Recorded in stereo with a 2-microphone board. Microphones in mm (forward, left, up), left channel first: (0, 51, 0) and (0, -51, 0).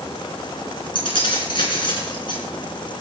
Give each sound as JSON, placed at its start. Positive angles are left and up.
{"t": 0.9, "sound": "keys jangling", "side_deg": 55, "distance_m": 3.5}